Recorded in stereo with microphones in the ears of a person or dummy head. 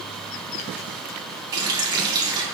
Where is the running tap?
25° right (ahead or behind), 1.9 m.